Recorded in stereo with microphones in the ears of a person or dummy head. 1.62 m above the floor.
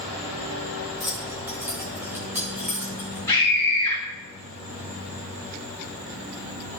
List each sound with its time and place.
1.0 s keys jangling: 10° right (ahead or behind), 0.7 m; by 3.2 s 15° right (ahead or behind), 3 m
3.3 s a scream: 10° left (ahead or behind), 2.5 m